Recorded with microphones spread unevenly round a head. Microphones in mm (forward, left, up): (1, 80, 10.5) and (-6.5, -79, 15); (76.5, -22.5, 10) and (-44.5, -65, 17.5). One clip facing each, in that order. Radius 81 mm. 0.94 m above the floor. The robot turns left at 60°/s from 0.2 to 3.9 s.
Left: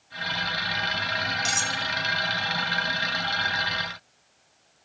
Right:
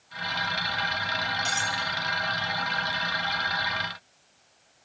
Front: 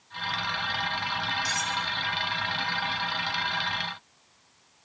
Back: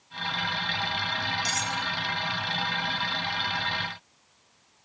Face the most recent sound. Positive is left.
turn(degrees=0)